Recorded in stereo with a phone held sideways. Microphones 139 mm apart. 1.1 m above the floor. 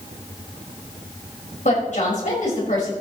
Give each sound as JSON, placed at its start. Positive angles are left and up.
{"t": 1.6, "sound": "a woman speaking", "side_deg": 55, "distance_m": 5.0}